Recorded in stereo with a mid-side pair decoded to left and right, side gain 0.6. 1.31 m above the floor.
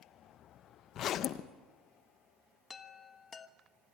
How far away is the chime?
About 1.3 m.